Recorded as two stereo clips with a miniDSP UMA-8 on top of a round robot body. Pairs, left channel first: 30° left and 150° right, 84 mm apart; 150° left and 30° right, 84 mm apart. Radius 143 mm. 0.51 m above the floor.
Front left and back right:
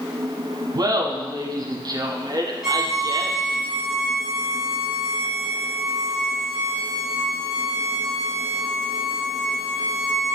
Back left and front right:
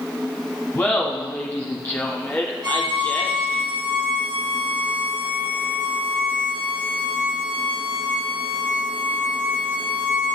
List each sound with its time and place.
0.8 s laughter: 155° right, 1.0 m
2.6 s a violin: 65° right, 1.5 m